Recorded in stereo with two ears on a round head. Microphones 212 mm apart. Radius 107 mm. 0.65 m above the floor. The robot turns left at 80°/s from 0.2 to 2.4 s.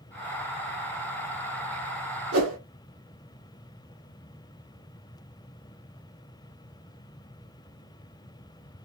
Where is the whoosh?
70° right (ahead or behind), 1.1 m.